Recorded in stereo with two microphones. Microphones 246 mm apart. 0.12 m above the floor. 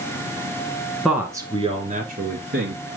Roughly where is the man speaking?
Centre.